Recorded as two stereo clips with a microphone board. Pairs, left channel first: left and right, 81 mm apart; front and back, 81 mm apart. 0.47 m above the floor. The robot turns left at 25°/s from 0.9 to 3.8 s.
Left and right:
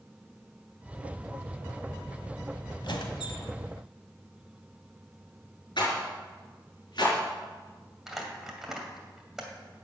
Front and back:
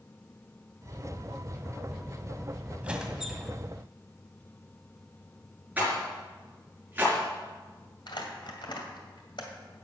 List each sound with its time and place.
2.8 s a squeak: 105° left, 1.6 m; by 3.5 s 90° left, 1.6 m
5.8 s a rattle: 110° left, 4.5 m
8.1 s crumpling: 5° right, 2 m